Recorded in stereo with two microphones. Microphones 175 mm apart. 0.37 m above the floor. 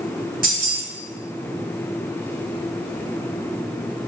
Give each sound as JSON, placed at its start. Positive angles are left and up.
{"t": 0.4, "sound": "keys jangling", "side_deg": -55, "distance_m": 1.3}